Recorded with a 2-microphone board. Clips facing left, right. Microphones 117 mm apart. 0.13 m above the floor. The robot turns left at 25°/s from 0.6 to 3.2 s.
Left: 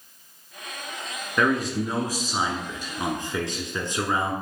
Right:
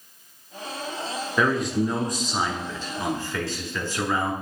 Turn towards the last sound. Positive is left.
turn(degrees=135)